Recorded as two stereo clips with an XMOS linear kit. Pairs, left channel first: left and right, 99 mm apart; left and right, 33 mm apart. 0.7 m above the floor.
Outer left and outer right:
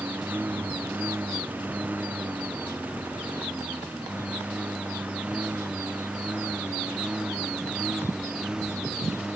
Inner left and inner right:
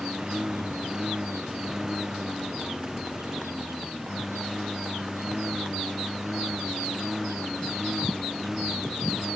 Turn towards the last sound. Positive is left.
turn(degrees=-5)  # may be behind; listen again after turning